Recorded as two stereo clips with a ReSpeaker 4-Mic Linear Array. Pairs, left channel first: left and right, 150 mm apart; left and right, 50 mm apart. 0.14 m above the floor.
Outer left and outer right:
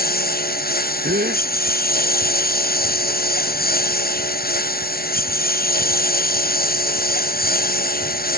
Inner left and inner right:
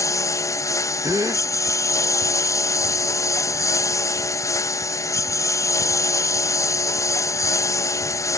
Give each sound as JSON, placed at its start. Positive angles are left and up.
{"t": 0.0, "sound": "a lawn mower", "side_deg": 90}
{"t": 1.0, "sound": "a gasp", "side_deg": -85}